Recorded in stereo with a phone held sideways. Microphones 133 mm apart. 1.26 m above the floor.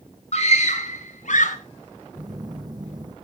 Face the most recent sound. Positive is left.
turn(degrees=-30)  # may be behind; listen again after turning